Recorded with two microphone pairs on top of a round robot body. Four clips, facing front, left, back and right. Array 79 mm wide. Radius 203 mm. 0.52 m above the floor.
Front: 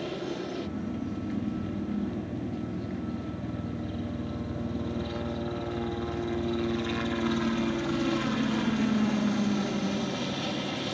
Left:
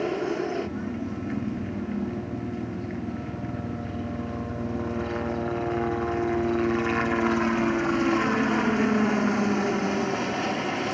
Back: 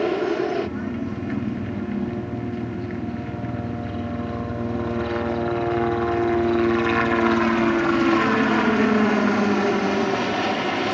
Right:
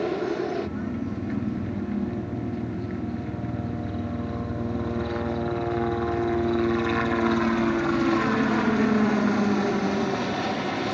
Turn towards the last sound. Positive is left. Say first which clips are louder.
# right 1 dB, back 12 dB
turn(degrees=-175)